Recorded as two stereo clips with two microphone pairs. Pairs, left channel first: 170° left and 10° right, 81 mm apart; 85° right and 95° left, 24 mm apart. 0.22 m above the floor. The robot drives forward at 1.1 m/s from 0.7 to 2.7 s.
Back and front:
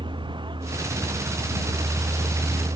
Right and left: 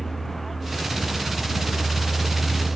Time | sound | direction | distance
0.0 | a vehicle | straight ahead | ?